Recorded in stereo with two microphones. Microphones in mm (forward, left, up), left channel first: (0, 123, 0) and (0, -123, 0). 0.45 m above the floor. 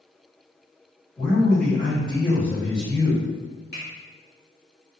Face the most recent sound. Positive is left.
turn(degrees=40)  # may be behind; listen again after turning